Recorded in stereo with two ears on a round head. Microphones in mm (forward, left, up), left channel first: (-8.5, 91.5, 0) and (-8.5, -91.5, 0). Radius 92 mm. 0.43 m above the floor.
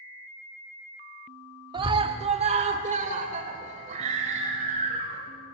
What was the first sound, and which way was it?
A scream, 25° right (ahead or behind).